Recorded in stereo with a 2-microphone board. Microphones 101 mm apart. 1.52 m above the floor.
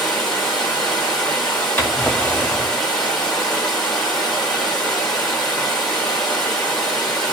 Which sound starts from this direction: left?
A drawer, at 1.8 s.